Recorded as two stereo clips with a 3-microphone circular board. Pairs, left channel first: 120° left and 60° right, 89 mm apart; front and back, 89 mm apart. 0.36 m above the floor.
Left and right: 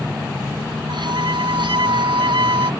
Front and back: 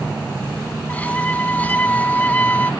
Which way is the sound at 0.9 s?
70° right.